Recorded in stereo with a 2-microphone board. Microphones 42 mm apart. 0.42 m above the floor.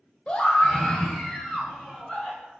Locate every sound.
0.3 s a scream: 25° left (ahead or behind), 1.3 m; by 2.5 s 10° left (ahead or behind), 4.5 m